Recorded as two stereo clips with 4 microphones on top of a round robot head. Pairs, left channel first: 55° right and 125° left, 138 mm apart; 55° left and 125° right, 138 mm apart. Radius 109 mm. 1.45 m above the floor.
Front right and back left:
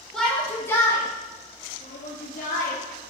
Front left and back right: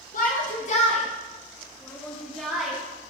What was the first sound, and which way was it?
A shout, 30° left.